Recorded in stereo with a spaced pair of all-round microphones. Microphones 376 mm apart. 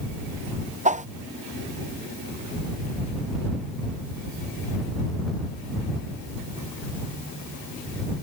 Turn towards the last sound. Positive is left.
turn(degrees=-20)  # may be behind; listen again after turning